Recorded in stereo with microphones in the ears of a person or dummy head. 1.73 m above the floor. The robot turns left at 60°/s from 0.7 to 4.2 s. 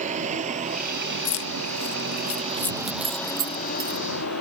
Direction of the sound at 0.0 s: 45° right (ahead or behind).